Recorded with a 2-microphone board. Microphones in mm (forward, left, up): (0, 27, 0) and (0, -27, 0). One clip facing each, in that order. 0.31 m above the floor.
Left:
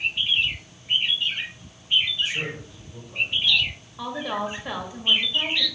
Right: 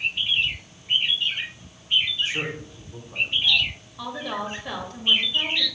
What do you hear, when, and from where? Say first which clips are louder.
2.2 s a man speaking: right 1 dB; 40° right (ahead or behind), 2 m
4.0 s a woman speaking: left 2 dB; 10° left (ahead or behind), 1.4 m